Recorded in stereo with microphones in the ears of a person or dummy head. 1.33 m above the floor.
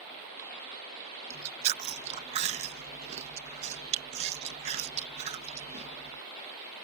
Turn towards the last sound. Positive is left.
turn(degrees=-35)  # may be behind; listen again after turning